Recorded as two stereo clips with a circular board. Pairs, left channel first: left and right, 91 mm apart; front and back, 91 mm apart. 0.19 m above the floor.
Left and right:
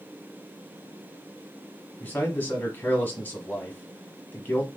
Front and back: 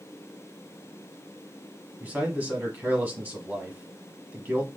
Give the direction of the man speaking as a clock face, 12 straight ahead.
8 o'clock.